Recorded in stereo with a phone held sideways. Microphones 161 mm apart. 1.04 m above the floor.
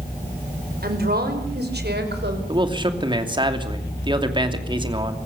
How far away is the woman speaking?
About 4.5 m.